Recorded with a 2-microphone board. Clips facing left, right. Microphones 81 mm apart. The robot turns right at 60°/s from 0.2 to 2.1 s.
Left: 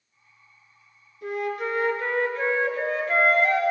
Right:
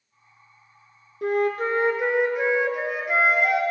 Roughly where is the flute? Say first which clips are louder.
Right 6 dB; ahead right.